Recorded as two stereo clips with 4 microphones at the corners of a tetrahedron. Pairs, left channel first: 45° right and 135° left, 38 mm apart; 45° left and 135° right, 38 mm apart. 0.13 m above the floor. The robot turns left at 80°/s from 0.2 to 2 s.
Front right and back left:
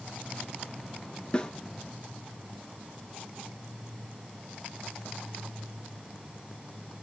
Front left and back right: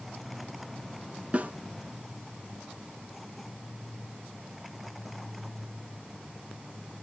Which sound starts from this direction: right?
A snare drum, at 1.3 s.